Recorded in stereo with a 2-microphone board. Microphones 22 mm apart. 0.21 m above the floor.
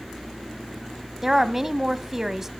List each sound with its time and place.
1.2 s a woman speaking: 15° right (ahead or behind), 1.0 m